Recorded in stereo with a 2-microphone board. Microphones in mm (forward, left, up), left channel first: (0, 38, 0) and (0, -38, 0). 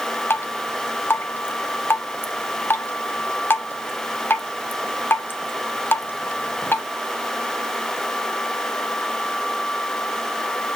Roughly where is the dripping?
Left.